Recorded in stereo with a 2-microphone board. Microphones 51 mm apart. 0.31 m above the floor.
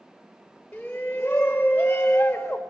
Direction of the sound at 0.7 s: 25° left (ahead or behind).